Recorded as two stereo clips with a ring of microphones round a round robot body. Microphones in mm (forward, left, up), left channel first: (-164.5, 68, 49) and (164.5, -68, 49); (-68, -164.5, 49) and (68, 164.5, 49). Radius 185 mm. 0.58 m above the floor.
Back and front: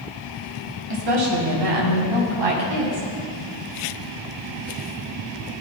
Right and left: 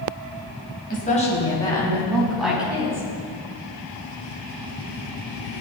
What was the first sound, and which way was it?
A woman speaking, 45° right.